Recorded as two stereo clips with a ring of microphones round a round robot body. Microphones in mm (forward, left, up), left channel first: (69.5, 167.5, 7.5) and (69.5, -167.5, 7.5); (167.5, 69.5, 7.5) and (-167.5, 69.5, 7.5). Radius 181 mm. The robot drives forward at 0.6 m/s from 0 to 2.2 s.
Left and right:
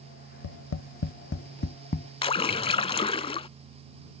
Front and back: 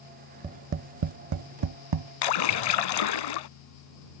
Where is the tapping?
105° left; by 2.1 s 160° left.